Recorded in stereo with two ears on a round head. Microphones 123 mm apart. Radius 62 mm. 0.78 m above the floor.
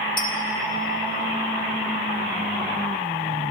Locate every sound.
0.2 s a clink: 35° left (ahead or behind), 1.0 m